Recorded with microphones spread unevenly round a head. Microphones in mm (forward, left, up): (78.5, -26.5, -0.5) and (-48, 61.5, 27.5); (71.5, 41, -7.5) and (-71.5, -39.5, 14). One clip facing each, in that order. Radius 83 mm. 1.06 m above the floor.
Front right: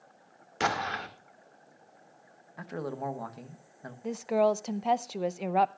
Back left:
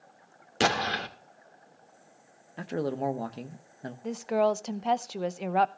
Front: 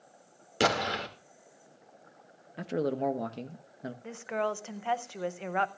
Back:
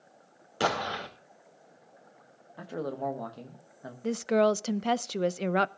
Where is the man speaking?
85° left, 1.3 m.